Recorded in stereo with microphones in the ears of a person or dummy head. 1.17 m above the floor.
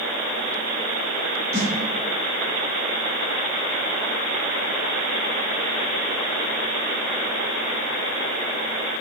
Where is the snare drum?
20° right (ahead or behind), 2.0 m.